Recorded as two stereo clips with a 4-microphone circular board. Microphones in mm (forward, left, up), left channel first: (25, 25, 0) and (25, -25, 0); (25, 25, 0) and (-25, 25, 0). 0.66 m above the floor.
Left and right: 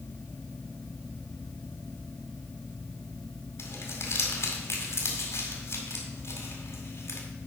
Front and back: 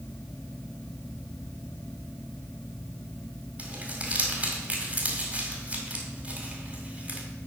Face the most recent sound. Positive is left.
turn(degrees=115)